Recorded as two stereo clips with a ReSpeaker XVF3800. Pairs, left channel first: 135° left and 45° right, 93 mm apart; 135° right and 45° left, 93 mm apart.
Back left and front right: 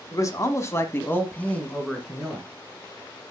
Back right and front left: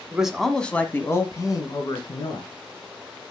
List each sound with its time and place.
0.1 s a man speaking: 120° left, 1.3 m; by 2.5 s 140° right, 2 m